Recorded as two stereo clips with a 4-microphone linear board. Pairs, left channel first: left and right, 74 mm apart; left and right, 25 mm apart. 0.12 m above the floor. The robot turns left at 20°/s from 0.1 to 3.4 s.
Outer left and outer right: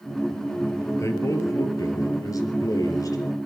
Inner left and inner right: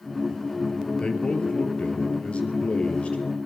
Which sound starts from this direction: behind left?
A man speaking, at 1.0 s.